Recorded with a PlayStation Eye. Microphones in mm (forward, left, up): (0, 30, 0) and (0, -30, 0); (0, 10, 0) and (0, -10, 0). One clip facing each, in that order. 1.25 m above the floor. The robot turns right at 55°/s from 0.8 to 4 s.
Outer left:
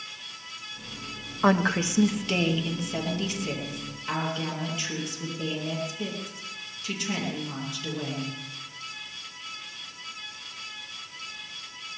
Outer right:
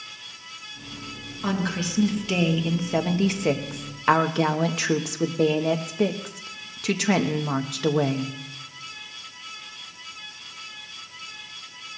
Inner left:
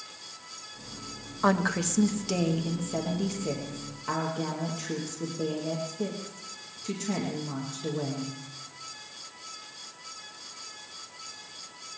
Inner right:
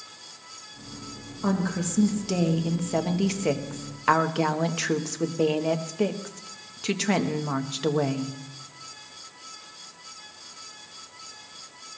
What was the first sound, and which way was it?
A woman speaking, 135° left.